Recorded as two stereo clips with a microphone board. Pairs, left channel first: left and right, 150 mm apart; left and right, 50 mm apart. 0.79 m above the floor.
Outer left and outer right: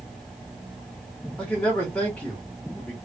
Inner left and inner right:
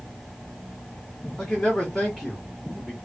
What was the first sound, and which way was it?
A man speaking, 10° left (ahead or behind).